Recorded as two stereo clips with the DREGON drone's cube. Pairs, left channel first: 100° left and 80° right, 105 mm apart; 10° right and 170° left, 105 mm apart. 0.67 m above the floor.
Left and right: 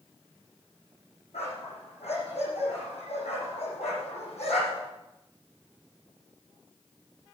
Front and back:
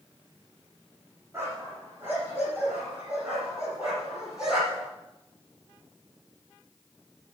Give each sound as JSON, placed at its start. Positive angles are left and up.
{"t": 1.3, "sound": "a dog barking", "azimuth_deg": 100, "distance_m": 7.5}